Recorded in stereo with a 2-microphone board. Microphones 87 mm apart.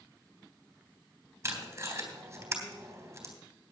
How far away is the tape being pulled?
About 3 m.